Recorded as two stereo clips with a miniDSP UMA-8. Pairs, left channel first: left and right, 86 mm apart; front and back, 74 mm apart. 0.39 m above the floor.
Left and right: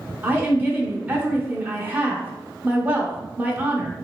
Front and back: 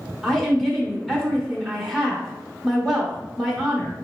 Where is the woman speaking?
85° right, 0.9 m.